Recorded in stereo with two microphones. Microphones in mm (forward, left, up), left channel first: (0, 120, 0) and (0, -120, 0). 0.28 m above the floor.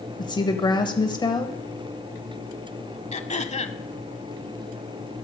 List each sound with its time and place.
0.2 s a woman speaking: 20° left (ahead or behind), 1.3 m
3.1 s throat clearing: 30° left (ahead or behind), 0.7 m